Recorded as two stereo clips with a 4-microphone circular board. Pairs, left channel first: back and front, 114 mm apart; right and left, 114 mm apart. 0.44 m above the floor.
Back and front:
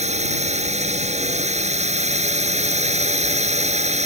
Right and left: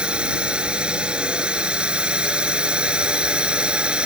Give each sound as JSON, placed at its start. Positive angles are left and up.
{"t": 0.0, "sound": "a drone", "azimuth_deg": 10}